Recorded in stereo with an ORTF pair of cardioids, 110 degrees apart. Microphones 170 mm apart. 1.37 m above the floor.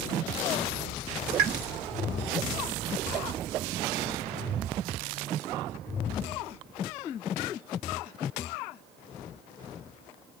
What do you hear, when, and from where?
1.4 s a pop: 65° right, 1.2 m